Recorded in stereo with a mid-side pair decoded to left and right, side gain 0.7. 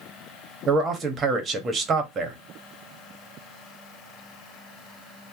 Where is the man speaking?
30° right, 1.2 m.